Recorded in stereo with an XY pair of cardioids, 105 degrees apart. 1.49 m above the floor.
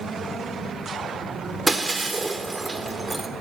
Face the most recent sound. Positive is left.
turn(degrees=-20)